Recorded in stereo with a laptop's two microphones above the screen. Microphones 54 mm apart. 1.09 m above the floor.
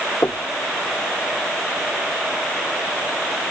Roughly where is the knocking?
Left.